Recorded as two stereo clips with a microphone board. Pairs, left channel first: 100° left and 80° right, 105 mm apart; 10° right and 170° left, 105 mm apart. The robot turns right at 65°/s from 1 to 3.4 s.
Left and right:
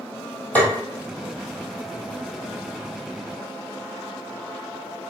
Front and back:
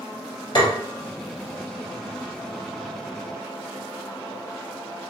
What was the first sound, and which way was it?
Tapping, 25° left.